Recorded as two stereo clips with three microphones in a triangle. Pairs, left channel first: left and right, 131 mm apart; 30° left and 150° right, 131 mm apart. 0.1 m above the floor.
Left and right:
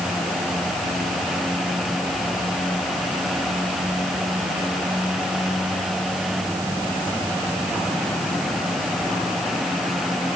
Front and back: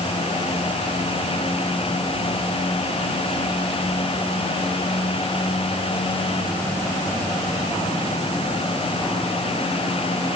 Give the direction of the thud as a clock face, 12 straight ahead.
No thud in this recording.